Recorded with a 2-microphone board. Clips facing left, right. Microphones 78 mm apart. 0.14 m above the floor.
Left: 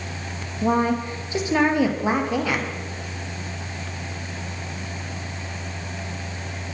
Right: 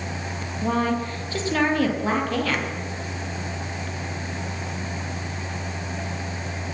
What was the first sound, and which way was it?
A woman speaking, 20° left (ahead or behind).